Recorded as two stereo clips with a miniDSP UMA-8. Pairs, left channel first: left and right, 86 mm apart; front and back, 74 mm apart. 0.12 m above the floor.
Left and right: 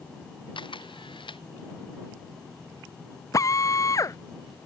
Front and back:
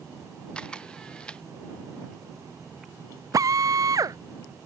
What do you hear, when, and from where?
0.6 s a camera shutter: 75° left
3.3 s a drill: 140° left